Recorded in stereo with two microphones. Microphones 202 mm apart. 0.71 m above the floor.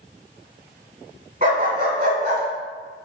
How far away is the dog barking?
About 2.0 m.